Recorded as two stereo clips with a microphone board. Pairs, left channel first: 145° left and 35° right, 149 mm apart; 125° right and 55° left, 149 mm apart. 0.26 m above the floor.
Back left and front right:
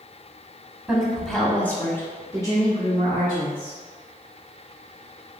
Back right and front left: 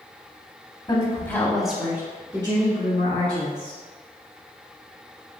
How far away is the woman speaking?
About 1.1 m.